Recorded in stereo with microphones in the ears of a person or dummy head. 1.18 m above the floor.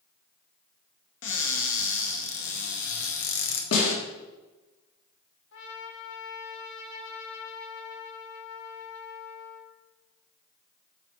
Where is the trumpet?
70° left (ahead or behind), 1.7 m.